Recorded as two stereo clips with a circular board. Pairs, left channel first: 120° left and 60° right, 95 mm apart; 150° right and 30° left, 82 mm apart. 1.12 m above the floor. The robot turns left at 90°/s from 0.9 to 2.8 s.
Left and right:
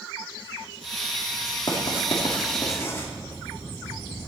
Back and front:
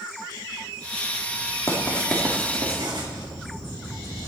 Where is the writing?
160° left, 3 m; by 3.1 s 55° left, 3 m.